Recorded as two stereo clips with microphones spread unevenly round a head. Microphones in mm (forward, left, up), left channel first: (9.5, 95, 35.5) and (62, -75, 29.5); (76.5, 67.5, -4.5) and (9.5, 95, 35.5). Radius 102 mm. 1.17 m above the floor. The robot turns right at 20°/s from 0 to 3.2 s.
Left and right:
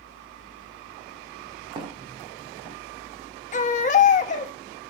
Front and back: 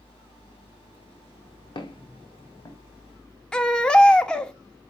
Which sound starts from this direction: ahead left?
A baby crying, at 3.5 s.